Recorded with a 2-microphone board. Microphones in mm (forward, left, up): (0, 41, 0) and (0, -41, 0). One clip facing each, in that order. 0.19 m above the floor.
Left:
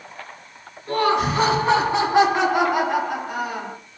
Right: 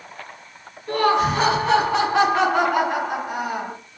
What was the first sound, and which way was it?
Laughter, 45° left (ahead or behind).